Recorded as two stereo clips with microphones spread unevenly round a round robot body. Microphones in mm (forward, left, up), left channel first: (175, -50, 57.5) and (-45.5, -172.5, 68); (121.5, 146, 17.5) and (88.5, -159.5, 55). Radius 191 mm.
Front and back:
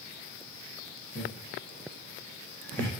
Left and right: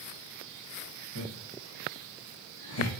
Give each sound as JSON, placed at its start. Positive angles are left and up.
{"t": 1.1, "sound": "laughter", "azimuth_deg": 120, "distance_m": 3.0}